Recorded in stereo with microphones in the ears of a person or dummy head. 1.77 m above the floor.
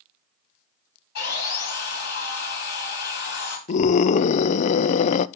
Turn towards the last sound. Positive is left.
turn(degrees=40)  # may be behind; listen again after turning